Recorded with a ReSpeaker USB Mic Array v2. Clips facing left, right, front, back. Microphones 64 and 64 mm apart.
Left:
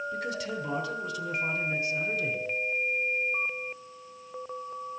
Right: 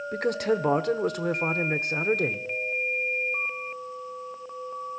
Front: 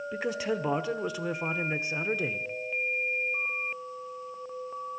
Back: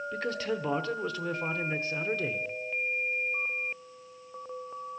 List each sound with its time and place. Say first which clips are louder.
0.1 s a man speaking: right 8 dB, front 2 dB; 75° right, 0.9 m